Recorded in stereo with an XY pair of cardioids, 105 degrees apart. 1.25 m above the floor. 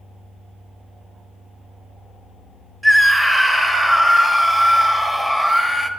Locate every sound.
2.8 s a scream: 10° right, 1.3 m